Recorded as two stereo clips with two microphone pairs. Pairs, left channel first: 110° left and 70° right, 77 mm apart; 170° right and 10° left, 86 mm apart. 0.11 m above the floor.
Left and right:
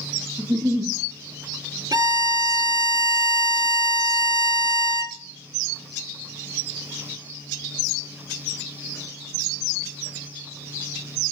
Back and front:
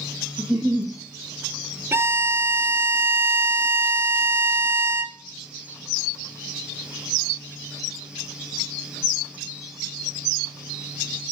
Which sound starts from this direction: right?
A giggle, at 0.4 s.